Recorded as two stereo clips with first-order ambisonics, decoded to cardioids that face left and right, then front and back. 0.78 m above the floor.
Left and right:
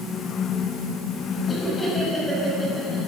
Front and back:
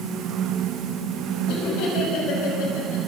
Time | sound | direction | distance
1.5 | laughter | 20° left | 5.5 m